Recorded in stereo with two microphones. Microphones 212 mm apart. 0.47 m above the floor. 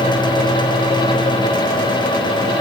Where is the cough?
No cough in this recording.